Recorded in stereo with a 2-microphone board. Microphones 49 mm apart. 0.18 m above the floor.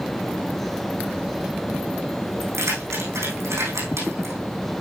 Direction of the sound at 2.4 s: 85° right.